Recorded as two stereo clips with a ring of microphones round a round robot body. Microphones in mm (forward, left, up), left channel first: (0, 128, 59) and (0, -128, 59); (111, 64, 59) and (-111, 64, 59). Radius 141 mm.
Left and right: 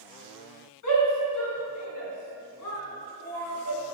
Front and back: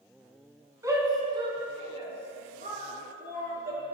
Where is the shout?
105° left, 4.5 m; by 3.8 s 130° left, 7 m.